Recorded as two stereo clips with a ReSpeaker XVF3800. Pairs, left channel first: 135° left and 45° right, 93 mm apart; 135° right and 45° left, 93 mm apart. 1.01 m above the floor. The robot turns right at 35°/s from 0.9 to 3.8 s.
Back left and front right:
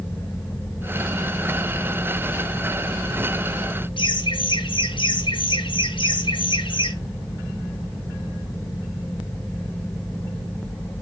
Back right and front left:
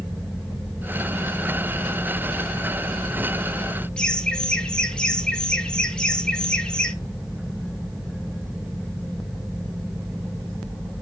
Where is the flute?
No flute in this recording.